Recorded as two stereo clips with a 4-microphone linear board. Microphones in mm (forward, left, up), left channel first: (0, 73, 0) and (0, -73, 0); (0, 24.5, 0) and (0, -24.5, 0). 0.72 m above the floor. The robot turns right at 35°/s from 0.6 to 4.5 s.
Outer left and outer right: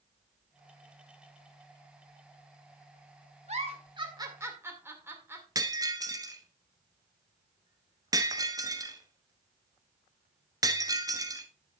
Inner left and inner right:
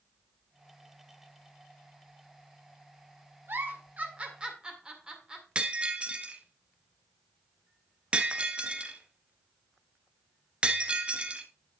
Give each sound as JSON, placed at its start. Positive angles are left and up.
{"t": 3.5, "sound": "a giggle", "side_deg": -50, "distance_m": 1.9}
{"t": 5.5, "sound": "breaking glass", "side_deg": -25, "distance_m": 1.1}